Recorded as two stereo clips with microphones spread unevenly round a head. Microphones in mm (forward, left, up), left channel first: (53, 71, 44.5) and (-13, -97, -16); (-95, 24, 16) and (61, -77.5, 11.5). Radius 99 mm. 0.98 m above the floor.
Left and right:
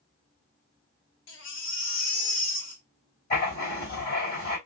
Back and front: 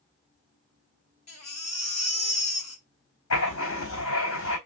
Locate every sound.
1.3 s a baby crying: 90° left, 1.6 m
3.3 s writing: 115° left, 4 m